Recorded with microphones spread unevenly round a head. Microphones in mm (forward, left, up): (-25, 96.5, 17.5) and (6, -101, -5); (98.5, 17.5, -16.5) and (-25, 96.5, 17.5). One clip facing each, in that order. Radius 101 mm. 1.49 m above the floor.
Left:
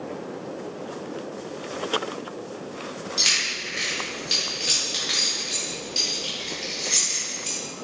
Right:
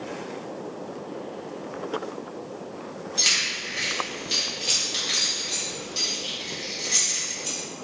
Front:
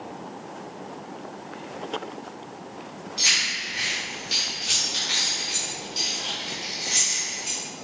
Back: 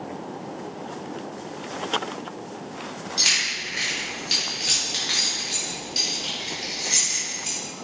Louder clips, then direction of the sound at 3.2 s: Left 1 dB, back 2 dB; 175° left.